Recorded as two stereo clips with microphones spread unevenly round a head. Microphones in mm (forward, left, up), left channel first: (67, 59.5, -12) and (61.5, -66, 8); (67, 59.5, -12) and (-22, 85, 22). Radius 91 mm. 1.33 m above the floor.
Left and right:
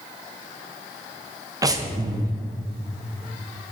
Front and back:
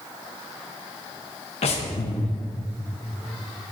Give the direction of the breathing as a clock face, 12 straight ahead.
1 o'clock.